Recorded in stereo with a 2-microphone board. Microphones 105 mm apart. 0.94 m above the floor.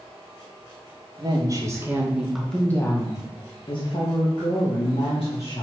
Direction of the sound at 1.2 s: 40° right (ahead or behind).